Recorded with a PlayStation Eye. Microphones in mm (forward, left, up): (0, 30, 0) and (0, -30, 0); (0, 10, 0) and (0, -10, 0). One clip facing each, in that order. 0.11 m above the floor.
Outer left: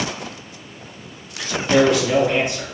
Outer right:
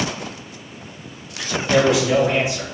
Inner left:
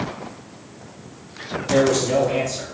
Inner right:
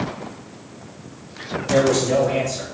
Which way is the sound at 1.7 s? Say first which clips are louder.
Outer left 1 dB, even; 10° right (ahead or behind).